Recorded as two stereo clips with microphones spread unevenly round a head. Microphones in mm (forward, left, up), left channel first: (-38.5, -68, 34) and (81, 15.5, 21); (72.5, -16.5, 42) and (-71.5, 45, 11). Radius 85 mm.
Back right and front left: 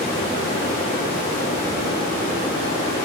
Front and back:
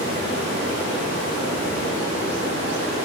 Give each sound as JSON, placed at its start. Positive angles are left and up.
{"t": 0.0, "sound": "running water", "azimuth_deg": 170, "distance_m": 4.5}